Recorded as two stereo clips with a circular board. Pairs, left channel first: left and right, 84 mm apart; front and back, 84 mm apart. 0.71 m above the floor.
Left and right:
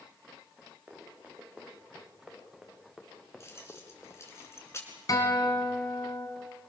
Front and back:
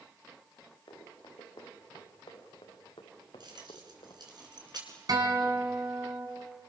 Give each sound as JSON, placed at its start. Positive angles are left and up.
{"t": 0.9, "sound": "running footsteps", "azimuth_deg": -20, "distance_m": 6.5}
{"t": 3.4, "sound": "keys jangling", "azimuth_deg": 150, "distance_m": 6.0}
{"t": 5.1, "sound": "a guitar", "azimuth_deg": 140, "distance_m": 4.5}